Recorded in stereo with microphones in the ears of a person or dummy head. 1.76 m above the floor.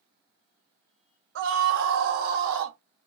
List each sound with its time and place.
1.4 s a scream: 60° right (ahead or behind), 1.4 m; by 2.8 s 70° right (ahead or behind), 1.7 m